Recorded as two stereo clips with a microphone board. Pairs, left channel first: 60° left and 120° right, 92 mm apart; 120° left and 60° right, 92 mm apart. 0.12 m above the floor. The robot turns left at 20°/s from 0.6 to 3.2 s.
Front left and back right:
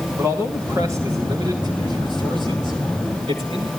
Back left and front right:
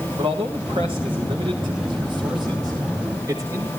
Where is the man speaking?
65° right, 9 m; by 3.7 s 115° right, 9 m.